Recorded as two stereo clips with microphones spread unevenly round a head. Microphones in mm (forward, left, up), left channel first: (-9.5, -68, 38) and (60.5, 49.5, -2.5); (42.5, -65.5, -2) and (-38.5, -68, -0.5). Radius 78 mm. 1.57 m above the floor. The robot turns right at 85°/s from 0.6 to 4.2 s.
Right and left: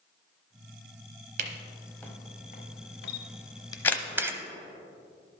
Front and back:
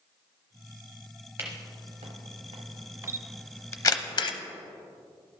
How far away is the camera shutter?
About 0.7 m.